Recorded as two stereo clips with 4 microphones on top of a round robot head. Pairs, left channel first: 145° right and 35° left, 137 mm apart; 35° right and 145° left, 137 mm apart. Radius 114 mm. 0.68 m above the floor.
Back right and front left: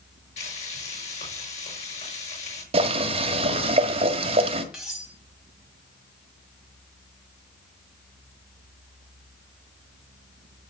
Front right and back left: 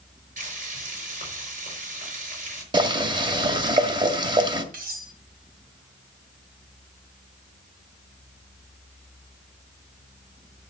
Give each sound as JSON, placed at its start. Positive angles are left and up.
{"t": 0.4, "sound": "frying", "azimuth_deg": 175, "distance_m": 5.0}
{"t": 2.7, "sound": "boiling", "azimuth_deg": 85, "distance_m": 1.6}
{"t": 4.7, "sound": "cutlery clinking", "azimuth_deg": 120, "distance_m": 3.0}